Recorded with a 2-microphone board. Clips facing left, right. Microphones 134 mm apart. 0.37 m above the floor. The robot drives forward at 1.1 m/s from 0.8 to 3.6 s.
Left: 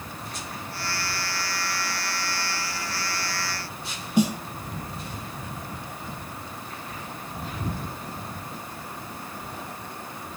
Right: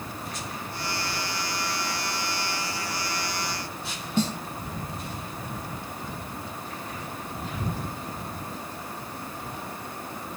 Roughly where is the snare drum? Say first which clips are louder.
Left 4 dB; centre.